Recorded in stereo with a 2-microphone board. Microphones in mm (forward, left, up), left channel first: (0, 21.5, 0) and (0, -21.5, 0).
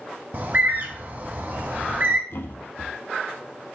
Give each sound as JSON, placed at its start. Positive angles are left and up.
{"t": 0.3, "sound": "a bird", "side_deg": -45, "distance_m": 1.0}
{"t": 2.3, "sound": "a thud", "side_deg": 65, "distance_m": 0.7}